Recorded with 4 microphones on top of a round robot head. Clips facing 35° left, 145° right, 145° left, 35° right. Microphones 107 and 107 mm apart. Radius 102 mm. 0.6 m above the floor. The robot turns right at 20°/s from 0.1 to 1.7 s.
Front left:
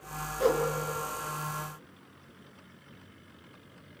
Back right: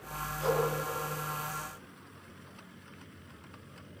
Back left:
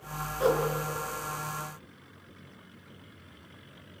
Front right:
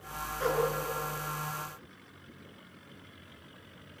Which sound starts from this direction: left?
A whoosh, at 0.4 s.